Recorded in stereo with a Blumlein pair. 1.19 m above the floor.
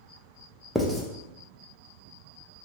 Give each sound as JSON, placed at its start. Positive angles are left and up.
{"t": 0.8, "sound": "writing", "azimuth_deg": 0, "distance_m": 0.6}